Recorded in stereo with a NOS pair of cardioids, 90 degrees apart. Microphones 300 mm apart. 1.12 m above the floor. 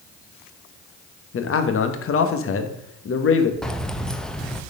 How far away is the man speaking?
About 1.3 m.